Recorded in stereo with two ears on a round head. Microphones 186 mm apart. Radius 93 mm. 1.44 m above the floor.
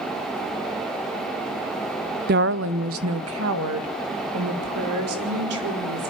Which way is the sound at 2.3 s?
45° right (ahead or behind).